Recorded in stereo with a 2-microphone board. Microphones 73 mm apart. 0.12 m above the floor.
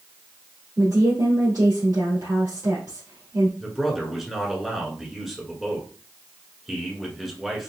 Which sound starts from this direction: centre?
A man speaking, at 3.6 s.